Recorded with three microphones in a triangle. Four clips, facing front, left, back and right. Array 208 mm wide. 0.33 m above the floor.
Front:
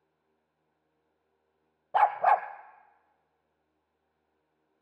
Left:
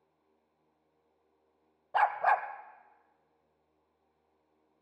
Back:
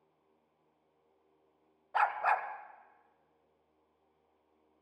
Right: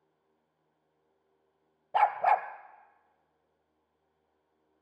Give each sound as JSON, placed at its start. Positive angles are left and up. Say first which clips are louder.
{"t": 1.9, "sound": "a dog barking", "louder": "right 2 dB, front 7 dB", "azimuth_deg": -30, "distance_m": 0.7}